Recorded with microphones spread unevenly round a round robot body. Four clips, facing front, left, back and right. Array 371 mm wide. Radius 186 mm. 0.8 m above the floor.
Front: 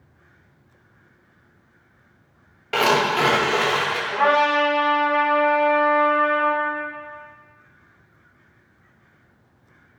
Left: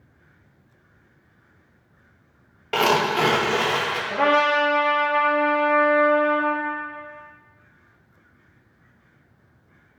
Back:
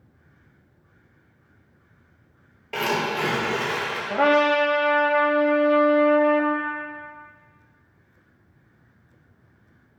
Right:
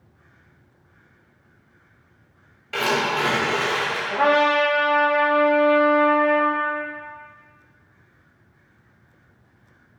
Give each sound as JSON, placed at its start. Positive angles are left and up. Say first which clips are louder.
{"t": 2.7, "sound": "tearing paper", "louder": "left 3 dB, front 6 dB", "azimuth_deg": 50, "distance_m": 2.0}
{"t": 4.1, "sound": "a trumpet", "louder": "right 1 dB, even", "azimuth_deg": 170, "distance_m": 1.2}